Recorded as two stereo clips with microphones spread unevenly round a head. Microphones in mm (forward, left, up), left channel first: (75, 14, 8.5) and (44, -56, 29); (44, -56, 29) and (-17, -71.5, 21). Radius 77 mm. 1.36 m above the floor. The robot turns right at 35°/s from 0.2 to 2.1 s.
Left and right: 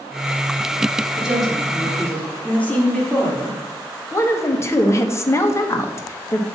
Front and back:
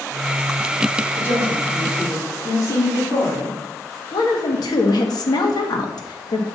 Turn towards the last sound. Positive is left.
turn(degrees=10)